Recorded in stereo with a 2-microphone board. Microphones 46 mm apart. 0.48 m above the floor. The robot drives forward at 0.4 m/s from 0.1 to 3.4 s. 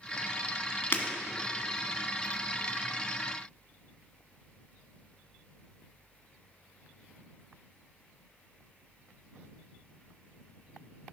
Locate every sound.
0.9 s breaking glass: 45° left (ahead or behind), 1.5 m; by 1.0 s 40° left (ahead or behind), 1.5 m